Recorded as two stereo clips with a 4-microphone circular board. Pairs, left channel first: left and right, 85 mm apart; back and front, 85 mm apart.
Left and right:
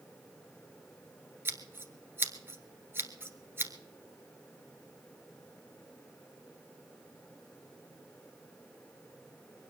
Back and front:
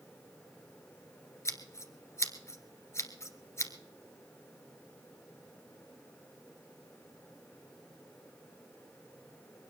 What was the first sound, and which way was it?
Scissors, 140° right.